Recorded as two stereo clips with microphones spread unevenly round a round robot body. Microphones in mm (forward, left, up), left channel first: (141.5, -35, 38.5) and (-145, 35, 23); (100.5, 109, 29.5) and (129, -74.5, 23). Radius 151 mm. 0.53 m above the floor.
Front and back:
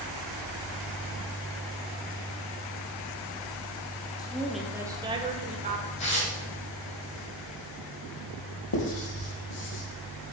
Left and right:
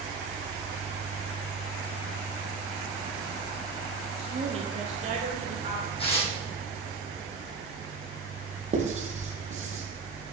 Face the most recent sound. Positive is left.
turn(degrees=-30)